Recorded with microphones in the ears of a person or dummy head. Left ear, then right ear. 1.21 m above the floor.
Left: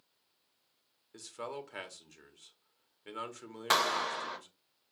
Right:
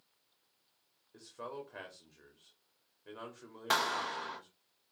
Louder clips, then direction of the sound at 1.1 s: Left 3 dB; 70° left (ahead or behind).